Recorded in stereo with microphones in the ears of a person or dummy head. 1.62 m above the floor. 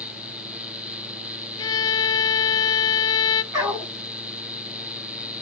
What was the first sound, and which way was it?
A violin, 20° left (ahead or behind).